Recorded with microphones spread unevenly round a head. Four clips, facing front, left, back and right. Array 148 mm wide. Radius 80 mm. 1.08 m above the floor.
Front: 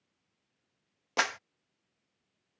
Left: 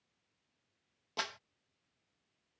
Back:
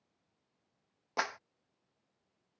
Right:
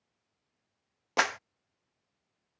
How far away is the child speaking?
No child speaking in this recording.